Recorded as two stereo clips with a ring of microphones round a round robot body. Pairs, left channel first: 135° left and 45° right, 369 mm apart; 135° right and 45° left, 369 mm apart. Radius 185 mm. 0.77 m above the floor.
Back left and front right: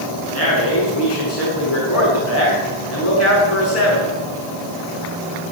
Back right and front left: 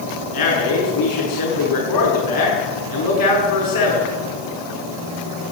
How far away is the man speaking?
About 7.5 m.